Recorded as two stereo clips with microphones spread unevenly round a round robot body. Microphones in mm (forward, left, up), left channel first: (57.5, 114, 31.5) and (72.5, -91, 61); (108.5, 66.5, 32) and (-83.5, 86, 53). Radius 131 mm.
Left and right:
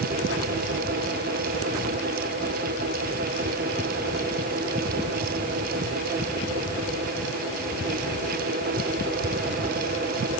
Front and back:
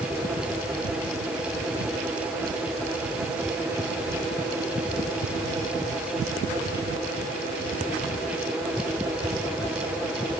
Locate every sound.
Only background noise.